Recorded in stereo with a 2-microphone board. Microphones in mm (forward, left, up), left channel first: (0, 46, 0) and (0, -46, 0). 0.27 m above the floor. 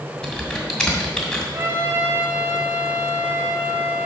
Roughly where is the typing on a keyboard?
Centre.